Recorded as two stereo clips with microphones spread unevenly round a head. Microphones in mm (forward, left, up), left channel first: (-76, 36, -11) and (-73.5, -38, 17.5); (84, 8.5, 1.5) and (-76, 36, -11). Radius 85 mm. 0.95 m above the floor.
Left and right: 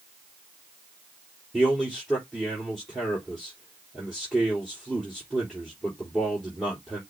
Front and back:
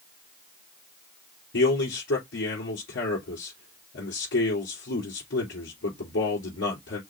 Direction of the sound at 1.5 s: 5° left.